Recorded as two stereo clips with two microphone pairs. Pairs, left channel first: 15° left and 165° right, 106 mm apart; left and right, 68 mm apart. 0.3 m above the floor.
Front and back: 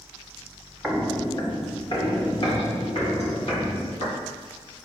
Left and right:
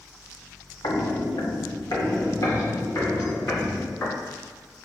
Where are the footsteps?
105° left, 0.9 m; by 4.2 s 35° left, 4.5 m.